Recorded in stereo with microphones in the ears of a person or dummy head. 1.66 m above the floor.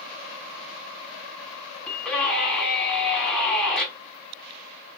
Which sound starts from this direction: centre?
A scream, at 1.9 s.